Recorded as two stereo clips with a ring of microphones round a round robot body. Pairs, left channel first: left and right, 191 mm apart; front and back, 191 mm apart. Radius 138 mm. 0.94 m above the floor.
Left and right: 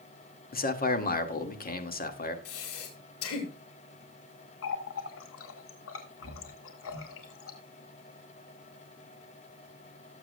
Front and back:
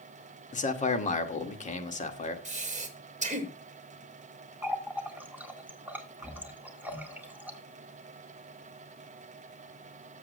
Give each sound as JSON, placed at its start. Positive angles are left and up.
{"t": 0.5, "sound": "a man speaking", "azimuth_deg": 50, "distance_m": 2.0}
{"t": 2.5, "sound": "breathing", "azimuth_deg": 130, "distance_m": 2.5}
{"t": 4.6, "sound": "a running tap", "azimuth_deg": 100, "distance_m": 2.0}